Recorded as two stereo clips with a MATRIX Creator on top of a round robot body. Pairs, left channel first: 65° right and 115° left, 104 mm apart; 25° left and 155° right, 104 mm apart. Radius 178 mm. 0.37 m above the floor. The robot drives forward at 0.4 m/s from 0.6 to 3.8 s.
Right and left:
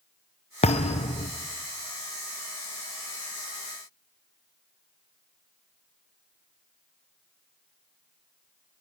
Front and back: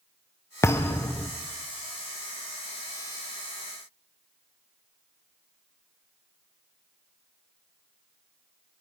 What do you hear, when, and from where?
0.6 s a thud: 45° right, 1.6 m; by 1.3 s 50° right, 1.4 m